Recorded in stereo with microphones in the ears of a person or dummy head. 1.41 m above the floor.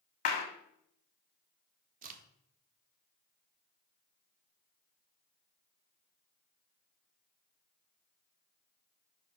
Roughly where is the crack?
Right.